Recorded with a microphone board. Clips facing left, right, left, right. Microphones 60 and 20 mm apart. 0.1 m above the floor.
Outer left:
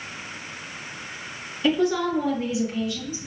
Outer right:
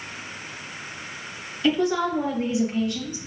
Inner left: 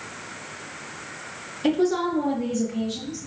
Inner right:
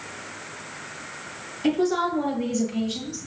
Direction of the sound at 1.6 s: 10° left (ahead or behind).